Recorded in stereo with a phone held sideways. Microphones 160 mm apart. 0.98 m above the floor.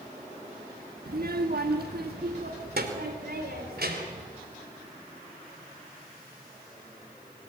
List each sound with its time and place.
1.1 s a child speaking: 75° right (ahead or behind), 1.1 m; by 4.3 s 80° right, 3.5 m